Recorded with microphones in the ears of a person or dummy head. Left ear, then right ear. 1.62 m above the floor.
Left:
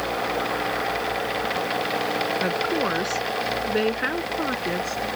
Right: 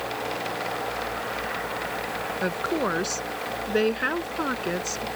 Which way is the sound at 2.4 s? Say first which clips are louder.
Left 3 dB; 15° right (ahead or behind).